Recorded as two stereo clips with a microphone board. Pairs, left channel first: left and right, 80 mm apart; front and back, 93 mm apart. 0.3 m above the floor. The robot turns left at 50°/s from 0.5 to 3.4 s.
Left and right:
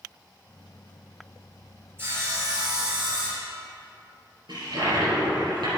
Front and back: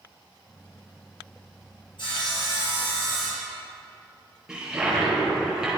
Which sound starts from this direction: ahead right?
Sawing, at 2.0 s.